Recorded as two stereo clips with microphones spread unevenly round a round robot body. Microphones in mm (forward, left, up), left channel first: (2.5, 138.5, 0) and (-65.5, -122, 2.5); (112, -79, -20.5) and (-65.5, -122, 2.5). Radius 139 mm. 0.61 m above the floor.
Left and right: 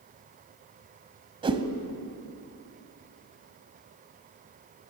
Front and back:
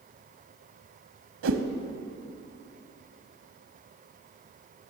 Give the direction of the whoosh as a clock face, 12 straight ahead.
6 o'clock.